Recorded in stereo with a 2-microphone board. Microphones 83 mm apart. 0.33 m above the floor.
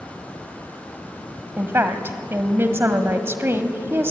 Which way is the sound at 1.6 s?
30° right (ahead or behind).